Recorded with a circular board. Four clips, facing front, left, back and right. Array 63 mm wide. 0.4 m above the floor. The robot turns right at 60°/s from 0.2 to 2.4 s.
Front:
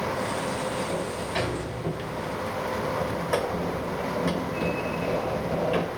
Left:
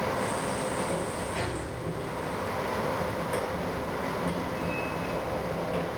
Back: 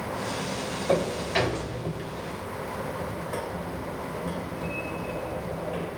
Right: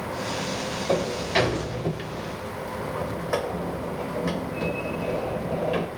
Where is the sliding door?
135° right, 0.6 m; by 5.9 s 45° right, 0.6 m.